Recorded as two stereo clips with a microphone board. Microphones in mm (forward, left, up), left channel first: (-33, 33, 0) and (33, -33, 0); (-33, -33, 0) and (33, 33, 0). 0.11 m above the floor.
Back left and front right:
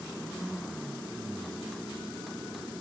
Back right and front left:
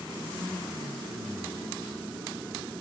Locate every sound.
Only background noise.